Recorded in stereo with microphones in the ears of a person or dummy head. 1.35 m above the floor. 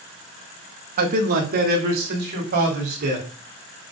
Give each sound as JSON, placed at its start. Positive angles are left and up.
{"t": 1.0, "sound": "a man speaking", "side_deg": -45, "distance_m": 1.7}